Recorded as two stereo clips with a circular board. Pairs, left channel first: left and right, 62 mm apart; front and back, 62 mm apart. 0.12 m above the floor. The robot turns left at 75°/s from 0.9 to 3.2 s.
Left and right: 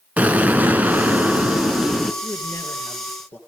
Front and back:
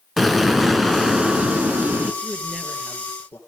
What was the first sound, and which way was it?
An explosion, 95° right.